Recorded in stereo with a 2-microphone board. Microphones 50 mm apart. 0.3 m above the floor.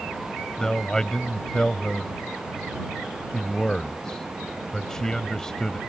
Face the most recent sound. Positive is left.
turn(degrees=15)  # may be behind; listen again after turning